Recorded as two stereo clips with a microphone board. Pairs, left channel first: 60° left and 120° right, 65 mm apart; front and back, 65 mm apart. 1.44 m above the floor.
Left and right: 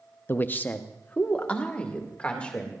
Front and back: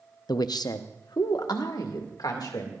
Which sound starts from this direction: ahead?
A man speaking, at 0.3 s.